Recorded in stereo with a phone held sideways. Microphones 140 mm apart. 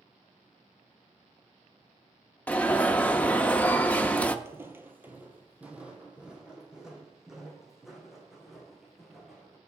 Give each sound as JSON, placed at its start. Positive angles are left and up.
{"t": 2.5, "sound": "an alarm", "side_deg": 10, "distance_m": 0.7}
{"t": 4.5, "sound": "footsteps", "side_deg": -20, "distance_m": 1.1}